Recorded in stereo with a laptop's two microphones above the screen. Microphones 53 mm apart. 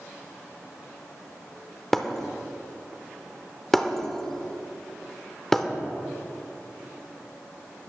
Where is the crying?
No crying in this recording.